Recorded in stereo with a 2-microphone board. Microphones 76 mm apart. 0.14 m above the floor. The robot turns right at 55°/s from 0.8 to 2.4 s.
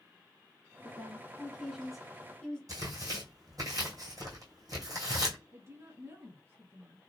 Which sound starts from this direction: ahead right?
A woman speaking, at 0.8 s.